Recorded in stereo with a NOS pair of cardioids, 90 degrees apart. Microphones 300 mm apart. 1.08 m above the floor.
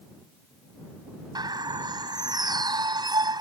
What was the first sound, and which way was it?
A bird, 15° right.